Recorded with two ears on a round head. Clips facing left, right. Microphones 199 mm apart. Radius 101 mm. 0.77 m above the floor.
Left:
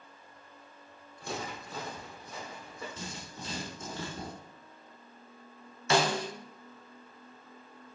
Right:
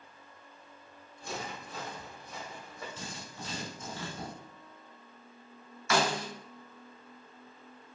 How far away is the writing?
About 1.7 m.